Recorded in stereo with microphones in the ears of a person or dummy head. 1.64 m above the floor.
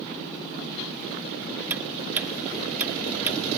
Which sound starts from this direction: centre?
Ticking, at 1.7 s.